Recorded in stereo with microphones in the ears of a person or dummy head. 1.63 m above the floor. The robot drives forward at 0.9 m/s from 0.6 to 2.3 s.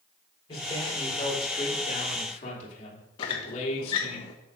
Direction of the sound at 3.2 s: 25° left (ahead or behind).